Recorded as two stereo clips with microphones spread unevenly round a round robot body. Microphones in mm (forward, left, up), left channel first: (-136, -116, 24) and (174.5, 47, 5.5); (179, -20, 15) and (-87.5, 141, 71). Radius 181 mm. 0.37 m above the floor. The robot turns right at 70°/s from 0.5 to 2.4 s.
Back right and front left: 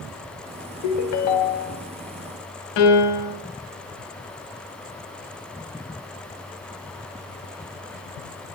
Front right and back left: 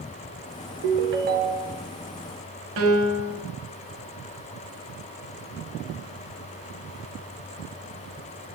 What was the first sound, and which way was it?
A ringtone, 175° left.